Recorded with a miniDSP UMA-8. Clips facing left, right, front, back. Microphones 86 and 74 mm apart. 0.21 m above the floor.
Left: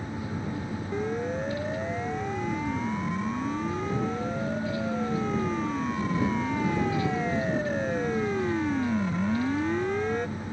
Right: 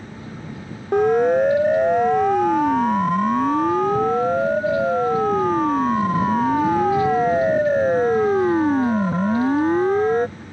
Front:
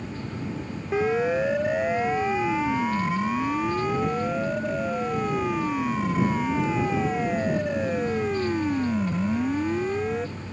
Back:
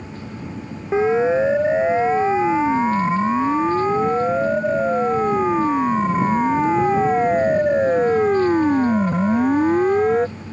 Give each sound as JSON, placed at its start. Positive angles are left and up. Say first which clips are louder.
{"t": 0.9, "sound": "a siren", "louder": "right 15 dB, back 7 dB", "azimuth_deg": -115}